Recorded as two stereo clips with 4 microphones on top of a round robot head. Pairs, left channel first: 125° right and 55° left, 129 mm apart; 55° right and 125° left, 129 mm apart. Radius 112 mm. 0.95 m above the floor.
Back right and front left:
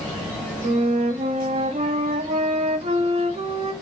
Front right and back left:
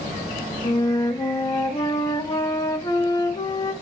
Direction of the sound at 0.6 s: 10° left.